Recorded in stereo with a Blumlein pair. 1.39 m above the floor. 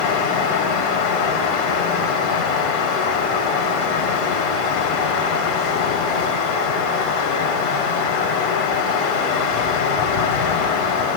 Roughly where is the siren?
I don't hear a siren.